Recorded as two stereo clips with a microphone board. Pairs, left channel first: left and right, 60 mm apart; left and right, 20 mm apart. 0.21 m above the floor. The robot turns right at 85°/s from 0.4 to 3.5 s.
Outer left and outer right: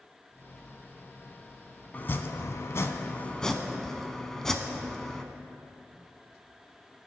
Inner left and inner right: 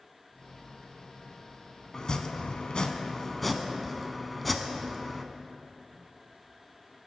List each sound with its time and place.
1.9 s chopping: 40° left, 0.5 m; by 5.2 s 170° left, 0.5 m